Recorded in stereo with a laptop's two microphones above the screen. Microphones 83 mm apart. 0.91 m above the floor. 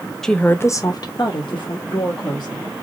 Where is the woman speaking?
5° left (ahead or behind), 0.5 m; by 2.7 s 80° left, 1.5 m.